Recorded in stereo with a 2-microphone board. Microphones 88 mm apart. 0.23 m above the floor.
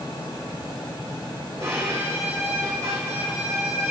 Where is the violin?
35° right (ahead or behind), 2.5 m.